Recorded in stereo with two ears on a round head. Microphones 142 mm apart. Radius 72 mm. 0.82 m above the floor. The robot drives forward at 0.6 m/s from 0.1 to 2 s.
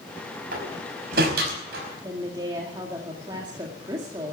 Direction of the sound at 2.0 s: 25° right (ahead or behind).